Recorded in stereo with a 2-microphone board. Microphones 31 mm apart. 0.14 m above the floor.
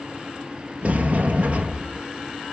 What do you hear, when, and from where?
0.8 s a sliding door: 50° right (ahead or behind), 1.2 m